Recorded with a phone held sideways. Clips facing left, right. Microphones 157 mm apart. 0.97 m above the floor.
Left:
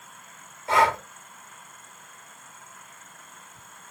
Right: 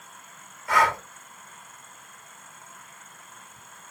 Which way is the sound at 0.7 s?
25° left (ahead or behind).